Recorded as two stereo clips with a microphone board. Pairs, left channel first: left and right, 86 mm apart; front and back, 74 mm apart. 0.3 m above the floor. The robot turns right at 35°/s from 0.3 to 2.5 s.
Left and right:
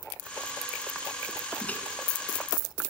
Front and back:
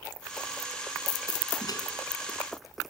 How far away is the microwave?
About 2.5 m.